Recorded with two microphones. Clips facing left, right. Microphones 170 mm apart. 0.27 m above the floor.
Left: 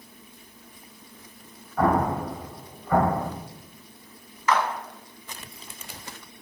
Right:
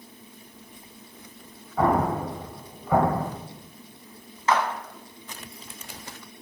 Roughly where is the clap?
Right.